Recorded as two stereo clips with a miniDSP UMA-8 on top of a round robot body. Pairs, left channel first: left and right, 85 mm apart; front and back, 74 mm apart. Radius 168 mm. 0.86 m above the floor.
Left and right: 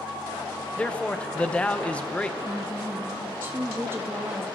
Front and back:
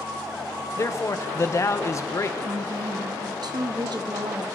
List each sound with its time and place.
0.8 s a man speaking: 20° left, 1.2 m
2.4 s a woman speaking: 155° right, 1.3 m